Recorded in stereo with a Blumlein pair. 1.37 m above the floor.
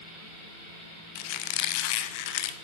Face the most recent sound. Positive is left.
turn(degrees=45)